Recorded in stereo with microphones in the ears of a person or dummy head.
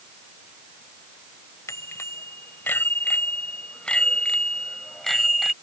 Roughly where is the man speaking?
No man speaking in this recording.